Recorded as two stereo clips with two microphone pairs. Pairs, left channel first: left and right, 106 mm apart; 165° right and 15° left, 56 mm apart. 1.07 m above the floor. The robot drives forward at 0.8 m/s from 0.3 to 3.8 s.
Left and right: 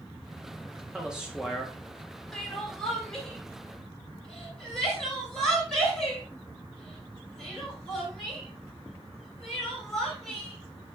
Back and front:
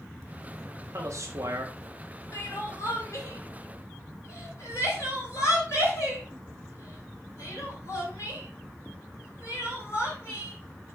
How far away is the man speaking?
About 1.8 m.